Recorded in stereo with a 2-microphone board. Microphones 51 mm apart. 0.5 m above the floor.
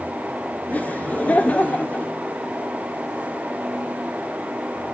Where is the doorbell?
I don't hear a doorbell.